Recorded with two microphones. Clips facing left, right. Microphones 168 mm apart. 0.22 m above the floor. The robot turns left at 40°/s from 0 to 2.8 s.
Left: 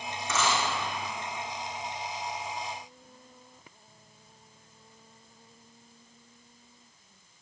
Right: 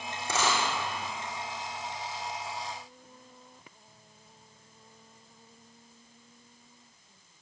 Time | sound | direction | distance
0.2 | a dropped coin | 30° right (ahead or behind) | 3 m